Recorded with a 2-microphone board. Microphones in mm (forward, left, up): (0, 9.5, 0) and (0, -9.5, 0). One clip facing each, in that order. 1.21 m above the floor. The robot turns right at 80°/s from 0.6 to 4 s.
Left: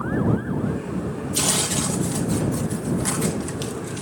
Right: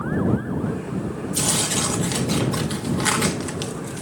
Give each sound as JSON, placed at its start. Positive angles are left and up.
{"t": 1.3, "sound": "tearing paper", "azimuth_deg": 165}